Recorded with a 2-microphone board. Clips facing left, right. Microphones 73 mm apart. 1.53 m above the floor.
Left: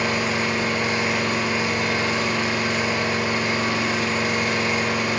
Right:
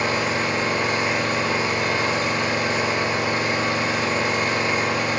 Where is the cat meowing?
No cat meowing in this recording.